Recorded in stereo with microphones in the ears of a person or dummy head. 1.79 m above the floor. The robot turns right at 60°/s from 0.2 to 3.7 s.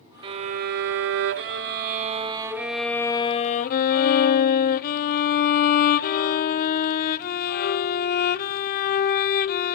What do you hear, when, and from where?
0.2 s a violin: 150° right, 0.5 m; by 9.8 s 60° left, 0.5 m